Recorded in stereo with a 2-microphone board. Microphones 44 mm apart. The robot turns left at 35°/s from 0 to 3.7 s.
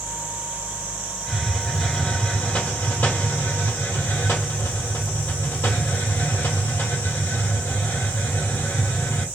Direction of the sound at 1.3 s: 165° right.